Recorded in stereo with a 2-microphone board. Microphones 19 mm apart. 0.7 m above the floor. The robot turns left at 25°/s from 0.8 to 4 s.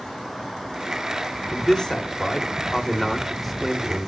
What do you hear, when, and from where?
1.5 s a man speaking: 55° left, 2 m; by 4.1 s 10° right, 2 m